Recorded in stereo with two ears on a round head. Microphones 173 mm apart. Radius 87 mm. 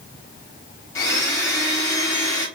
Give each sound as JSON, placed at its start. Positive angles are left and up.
{"t": 0.9, "sound": "a blender", "side_deg": 15, "distance_m": 0.9}